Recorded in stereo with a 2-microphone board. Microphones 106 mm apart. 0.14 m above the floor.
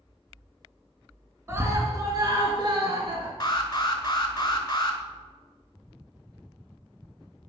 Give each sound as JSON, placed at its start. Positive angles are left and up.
{"t": 1.5, "sound": "a scream", "side_deg": -25, "distance_m": 1.3}
{"t": 3.4, "sound": "an alarm", "side_deg": 40, "distance_m": 1.0}